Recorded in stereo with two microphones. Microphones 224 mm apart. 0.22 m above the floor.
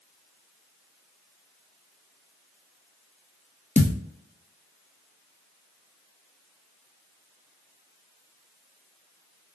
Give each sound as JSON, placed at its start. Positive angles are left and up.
{"t": 3.8, "sound": "a thud", "side_deg": 35, "distance_m": 0.5}